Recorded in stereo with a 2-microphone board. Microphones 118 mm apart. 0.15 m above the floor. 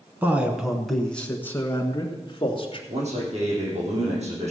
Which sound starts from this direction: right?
A man speaking, at 2.9 s.